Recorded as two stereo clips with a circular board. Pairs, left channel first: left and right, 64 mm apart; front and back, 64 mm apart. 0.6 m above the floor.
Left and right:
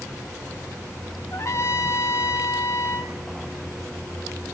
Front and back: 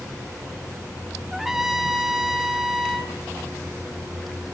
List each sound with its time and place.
1.3 s a trumpet: 95° left, 0.8 m